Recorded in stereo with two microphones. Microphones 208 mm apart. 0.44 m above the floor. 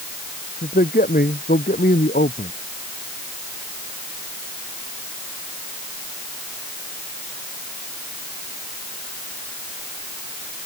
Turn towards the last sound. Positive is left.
turn(degrees=45)  # may be behind; listen again after turning